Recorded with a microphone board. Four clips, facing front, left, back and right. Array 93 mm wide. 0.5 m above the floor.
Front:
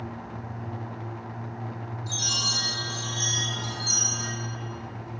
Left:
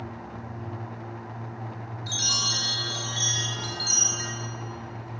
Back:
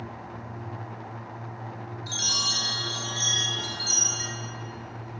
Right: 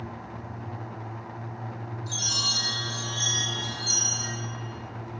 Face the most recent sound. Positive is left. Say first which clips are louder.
# left 4 dB, even
turn(degrees=120)